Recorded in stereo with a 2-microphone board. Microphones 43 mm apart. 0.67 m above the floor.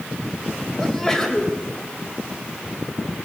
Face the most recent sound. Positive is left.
turn(degrees=15)  # may be behind; listen again after turning